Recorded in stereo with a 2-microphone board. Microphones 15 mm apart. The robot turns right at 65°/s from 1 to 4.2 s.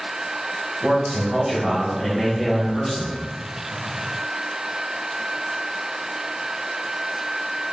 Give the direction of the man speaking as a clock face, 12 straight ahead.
2 o'clock.